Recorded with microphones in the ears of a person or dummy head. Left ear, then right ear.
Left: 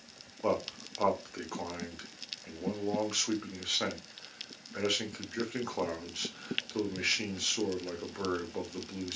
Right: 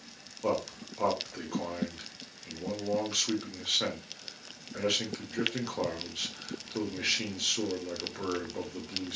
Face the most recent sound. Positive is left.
turn(degrees=30)  # may be behind; listen again after turning